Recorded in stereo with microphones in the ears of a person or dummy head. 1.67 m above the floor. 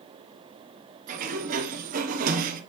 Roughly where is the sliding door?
Right.